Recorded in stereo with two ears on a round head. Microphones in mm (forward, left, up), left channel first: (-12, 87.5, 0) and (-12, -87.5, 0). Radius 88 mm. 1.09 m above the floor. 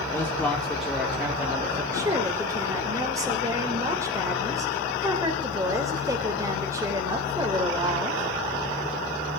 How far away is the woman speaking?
About 3.5 m.